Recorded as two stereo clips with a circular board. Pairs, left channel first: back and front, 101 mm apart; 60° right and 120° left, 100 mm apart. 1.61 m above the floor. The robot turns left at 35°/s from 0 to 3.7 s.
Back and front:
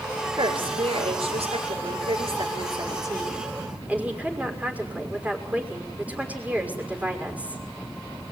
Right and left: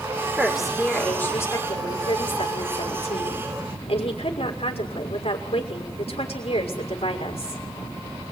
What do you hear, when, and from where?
0.4 s a woman speaking: 40° left, 6 m; by 7.6 s 75° right, 6 m